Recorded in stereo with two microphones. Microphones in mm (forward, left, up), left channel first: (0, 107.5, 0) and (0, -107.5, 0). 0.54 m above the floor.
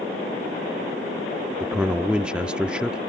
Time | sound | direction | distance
1.6 | a man speaking | 5° right (ahead or behind) | ?